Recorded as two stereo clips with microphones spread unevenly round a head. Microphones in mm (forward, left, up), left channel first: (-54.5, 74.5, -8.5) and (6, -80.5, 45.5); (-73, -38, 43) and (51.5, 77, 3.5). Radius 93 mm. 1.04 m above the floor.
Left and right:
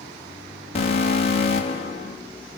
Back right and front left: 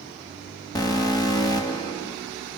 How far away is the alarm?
About 3.5 m.